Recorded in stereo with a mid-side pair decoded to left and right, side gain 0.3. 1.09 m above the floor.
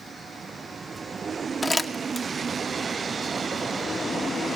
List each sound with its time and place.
1.6 s crumpling: 20° left, 2 m